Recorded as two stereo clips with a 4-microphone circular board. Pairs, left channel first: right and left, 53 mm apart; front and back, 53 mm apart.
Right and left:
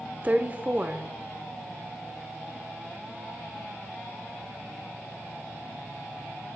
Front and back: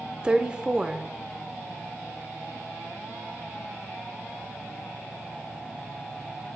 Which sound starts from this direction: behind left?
A woman speaking, at 0.2 s.